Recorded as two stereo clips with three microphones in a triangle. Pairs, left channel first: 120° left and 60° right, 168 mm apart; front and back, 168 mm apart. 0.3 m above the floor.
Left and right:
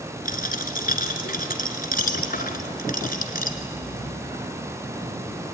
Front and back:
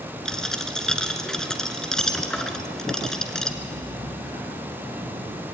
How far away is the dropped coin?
About 1.5 m.